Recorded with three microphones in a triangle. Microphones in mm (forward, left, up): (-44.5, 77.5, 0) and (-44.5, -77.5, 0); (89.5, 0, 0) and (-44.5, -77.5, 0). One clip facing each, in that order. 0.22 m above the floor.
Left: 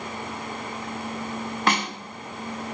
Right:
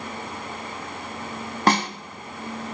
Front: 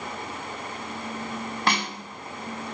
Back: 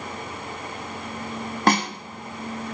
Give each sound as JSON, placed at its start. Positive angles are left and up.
{"t": 1.7, "sound": "a snare drum", "azimuth_deg": -125, "distance_m": 0.8}